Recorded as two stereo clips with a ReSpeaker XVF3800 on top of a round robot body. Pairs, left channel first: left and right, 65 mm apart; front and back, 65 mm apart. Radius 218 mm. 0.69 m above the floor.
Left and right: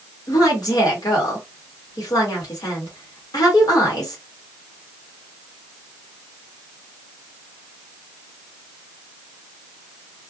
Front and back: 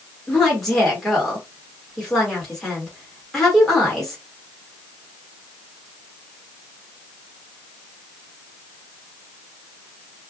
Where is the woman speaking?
85° left, 1.6 m.